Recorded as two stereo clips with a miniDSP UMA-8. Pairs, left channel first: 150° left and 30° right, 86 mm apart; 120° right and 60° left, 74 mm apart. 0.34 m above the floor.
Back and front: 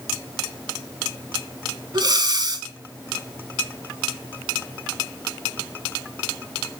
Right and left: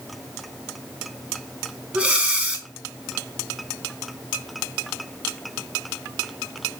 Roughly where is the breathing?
Ahead.